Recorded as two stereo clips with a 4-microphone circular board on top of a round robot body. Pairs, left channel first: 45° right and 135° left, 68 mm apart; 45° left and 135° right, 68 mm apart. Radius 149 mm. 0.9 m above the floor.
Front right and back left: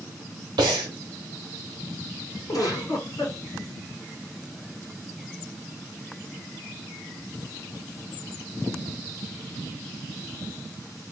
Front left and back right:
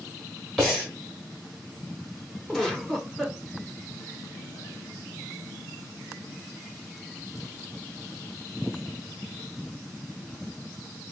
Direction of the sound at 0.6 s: 130° left.